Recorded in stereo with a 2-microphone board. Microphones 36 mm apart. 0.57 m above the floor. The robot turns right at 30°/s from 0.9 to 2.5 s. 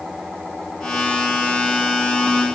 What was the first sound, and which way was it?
Only background noise.